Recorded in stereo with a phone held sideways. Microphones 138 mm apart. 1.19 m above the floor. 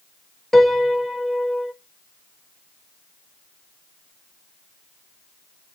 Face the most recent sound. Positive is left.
turn(degrees=0)  # may be behind; listen again after turning